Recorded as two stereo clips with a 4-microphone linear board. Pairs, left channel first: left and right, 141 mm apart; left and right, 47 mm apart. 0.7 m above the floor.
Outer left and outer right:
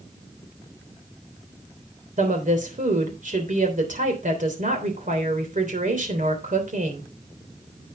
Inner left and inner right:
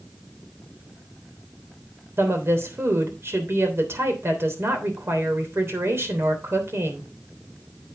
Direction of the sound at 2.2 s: 60° right (ahead or behind).